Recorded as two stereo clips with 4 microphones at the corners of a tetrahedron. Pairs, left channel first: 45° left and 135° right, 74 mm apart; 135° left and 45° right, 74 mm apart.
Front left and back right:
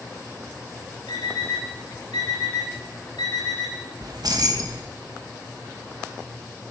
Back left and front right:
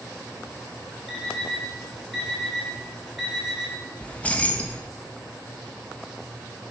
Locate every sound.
1.1 s an alarm clock: 45° left, 5 m
4.0 s keys jangling: 155° right, 1.3 m